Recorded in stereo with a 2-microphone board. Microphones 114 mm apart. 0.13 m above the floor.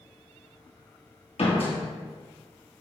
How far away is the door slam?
About 1.6 m.